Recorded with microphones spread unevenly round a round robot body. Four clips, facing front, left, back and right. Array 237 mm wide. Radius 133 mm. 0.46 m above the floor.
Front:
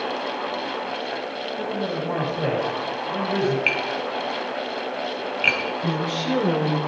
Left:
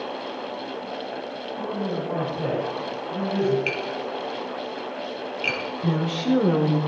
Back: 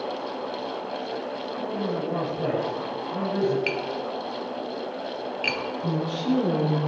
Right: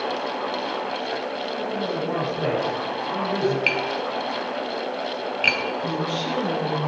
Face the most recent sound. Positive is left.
turn(degrees=50)